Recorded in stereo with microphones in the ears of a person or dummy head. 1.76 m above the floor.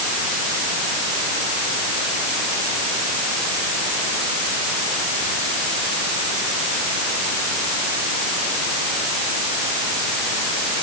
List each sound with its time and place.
Only background noise.